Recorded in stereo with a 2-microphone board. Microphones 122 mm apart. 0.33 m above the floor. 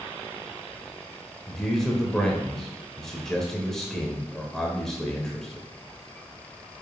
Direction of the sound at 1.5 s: 5° left (ahead or behind).